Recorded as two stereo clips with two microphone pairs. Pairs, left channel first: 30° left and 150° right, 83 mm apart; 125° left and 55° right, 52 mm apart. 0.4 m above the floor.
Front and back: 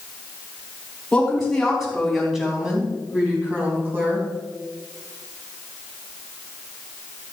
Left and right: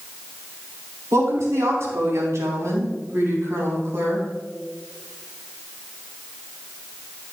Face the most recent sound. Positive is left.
turn(degrees=-90)